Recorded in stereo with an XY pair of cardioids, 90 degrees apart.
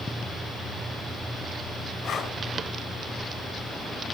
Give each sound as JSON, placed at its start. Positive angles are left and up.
{"t": 2.0, "sound": "breathing", "azimuth_deg": 70, "distance_m": 4.5}